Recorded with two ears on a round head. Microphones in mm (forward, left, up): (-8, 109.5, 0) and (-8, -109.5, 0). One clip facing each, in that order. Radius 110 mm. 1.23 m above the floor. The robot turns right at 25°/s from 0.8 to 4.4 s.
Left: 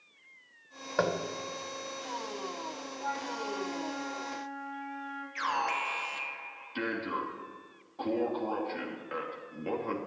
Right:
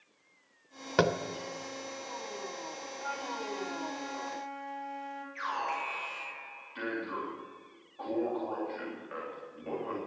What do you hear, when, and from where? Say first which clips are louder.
1.0 s tapping: right 2 dB; 45° right (ahead or behind), 0.9 m
3.0 s a flute: left 2 dB; 160° right, 3.5 m; by 5.2 s 125° right, 3.5 m
5.3 s an alarm: left 3 dB; 60° left (ahead or behind), 3 m